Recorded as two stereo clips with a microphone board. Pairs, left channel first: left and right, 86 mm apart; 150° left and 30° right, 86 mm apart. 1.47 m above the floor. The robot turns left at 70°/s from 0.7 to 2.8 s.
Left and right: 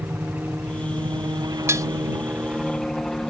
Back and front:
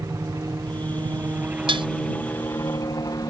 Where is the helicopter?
35° right; by 3.3 s 175° left.